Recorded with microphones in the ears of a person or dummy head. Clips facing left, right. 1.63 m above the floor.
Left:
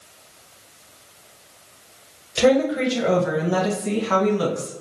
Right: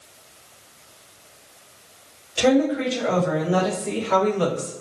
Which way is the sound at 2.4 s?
55° left (ahead or behind).